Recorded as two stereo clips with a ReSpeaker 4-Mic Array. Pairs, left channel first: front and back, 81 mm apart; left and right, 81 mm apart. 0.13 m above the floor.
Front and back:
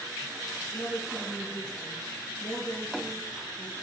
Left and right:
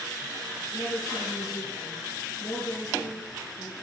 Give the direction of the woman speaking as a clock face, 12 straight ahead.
10 o'clock.